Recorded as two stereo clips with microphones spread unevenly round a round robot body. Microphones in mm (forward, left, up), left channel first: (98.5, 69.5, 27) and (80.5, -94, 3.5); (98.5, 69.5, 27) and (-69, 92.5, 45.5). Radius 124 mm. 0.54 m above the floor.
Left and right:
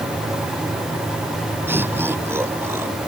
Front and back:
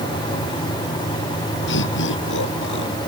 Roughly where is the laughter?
Ahead.